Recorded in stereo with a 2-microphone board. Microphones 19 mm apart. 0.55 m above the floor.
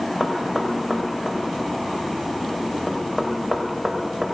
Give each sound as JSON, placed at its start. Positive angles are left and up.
{"t": 0.2, "sound": "knocking", "side_deg": -15, "distance_m": 2.5}